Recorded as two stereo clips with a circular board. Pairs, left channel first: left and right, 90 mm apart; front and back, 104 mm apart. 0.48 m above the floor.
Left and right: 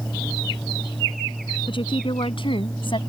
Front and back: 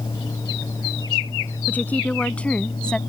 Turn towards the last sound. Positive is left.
turn(degrees=80)